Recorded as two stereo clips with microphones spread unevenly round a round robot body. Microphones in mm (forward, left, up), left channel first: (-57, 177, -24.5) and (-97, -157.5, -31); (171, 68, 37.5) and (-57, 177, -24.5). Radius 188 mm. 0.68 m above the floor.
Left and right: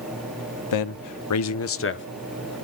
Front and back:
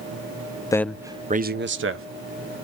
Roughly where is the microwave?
No microwave in this recording.